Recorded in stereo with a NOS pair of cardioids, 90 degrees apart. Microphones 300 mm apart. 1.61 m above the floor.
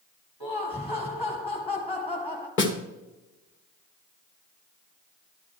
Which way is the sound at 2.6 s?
40° left.